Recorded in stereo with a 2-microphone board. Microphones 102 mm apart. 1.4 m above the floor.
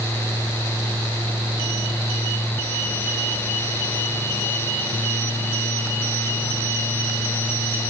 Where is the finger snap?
No finger snap in this recording.